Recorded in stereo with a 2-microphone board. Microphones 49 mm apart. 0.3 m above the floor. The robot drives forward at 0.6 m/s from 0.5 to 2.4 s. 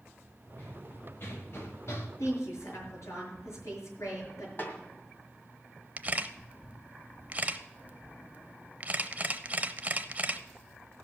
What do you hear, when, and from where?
0.6 s running footsteps: 40° left (ahead or behind), 4 m; by 2.1 s 65° left (ahead or behind), 2 m
2.2 s a woman speaking: 75° left (ahead or behind), 5.5 m
4.6 s a snare drum: 40° left (ahead or behind), 2 m
6.0 s a camera shutter: 35° right (ahead or behind), 0.5 m